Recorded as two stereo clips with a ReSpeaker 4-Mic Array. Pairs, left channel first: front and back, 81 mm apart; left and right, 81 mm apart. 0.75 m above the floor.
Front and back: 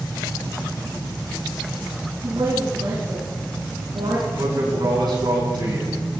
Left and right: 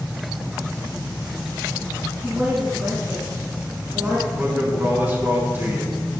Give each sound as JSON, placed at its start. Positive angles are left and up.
{"t": 2.2, "sound": "a woman speaking", "azimuth_deg": -165, "distance_m": 6.5}
{"t": 4.4, "sound": "a man speaking", "azimuth_deg": -155, "distance_m": 6.0}